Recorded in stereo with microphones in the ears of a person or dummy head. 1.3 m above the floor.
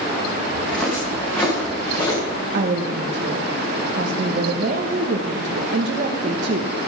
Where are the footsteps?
5° left (ahead or behind), 5 m; by 2.2 s 25° left (ahead or behind), 5 m.